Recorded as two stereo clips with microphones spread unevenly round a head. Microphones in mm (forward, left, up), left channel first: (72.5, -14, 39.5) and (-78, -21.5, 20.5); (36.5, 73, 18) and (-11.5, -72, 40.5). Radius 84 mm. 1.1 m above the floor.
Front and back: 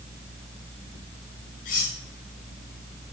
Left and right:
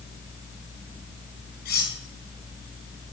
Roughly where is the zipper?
I don't hear a zipper.